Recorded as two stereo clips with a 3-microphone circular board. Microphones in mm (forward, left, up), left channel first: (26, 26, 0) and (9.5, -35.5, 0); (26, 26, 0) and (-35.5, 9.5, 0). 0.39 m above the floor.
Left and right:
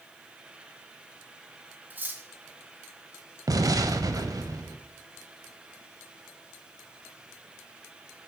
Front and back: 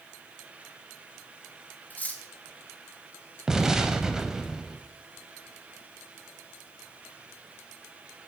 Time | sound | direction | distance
1.9 | cutlery clinking | 45° right | 1.0 m
3.5 | an explosion | 85° right | 0.6 m